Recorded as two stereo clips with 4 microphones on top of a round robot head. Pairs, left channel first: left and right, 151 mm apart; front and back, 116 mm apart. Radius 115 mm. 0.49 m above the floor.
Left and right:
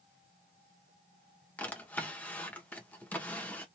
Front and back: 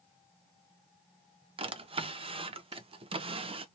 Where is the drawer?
165° left, 0.6 m.